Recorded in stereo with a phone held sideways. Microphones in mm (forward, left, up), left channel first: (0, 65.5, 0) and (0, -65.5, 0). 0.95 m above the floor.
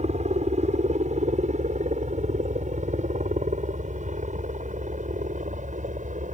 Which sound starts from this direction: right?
A helicopter, at 0.0 s.